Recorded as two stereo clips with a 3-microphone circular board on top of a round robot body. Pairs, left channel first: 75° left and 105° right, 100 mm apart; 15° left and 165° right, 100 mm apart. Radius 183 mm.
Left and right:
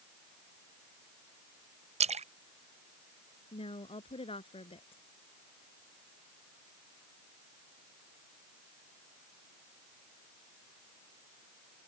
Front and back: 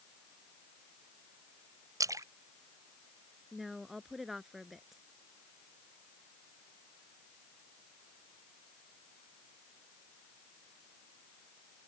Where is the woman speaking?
110° left.